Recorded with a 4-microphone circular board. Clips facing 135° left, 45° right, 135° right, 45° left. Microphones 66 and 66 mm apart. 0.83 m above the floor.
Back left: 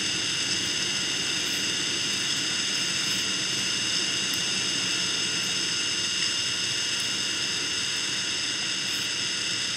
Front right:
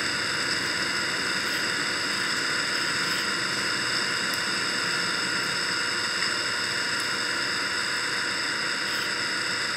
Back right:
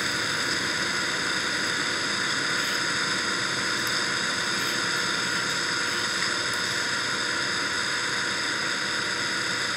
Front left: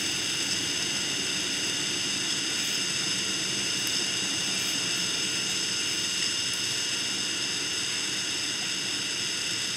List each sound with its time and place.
0.0 s an engine running: 95° right